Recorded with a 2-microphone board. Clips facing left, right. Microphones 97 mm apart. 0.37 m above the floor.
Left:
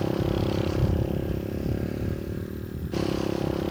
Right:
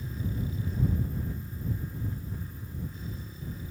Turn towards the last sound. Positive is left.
turn(degrees=80)